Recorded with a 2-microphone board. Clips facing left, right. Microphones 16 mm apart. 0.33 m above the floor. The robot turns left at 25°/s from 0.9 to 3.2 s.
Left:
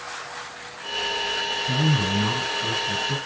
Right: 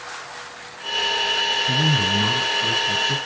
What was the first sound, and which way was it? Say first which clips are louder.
A man speaking: right 4 dB; 75° right.